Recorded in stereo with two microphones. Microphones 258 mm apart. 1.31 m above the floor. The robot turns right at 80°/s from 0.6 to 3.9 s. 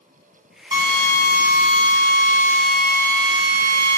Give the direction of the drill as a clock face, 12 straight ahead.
1 o'clock.